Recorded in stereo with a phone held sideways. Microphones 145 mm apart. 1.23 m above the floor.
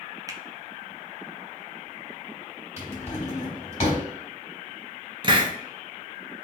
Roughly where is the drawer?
Left.